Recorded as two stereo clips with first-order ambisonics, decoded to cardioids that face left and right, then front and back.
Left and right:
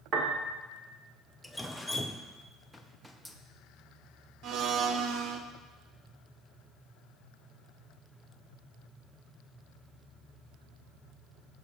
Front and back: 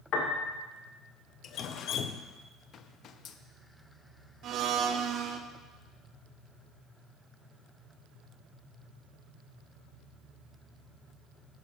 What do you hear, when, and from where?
0.1 s a piano: 35° right, 1.5 m
1.4 s dripping: 5° left, 0.5 m
4.4 s a blender: 130° right, 0.7 m